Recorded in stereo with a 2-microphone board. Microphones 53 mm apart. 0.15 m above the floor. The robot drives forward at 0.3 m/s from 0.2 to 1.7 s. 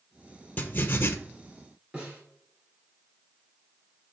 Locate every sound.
0.6 s writing: 35° left (ahead or behind), 0.7 m; by 1.1 s 45° left (ahead or behind), 0.5 m
1.9 s a snare drum: 20° right (ahead or behind), 2 m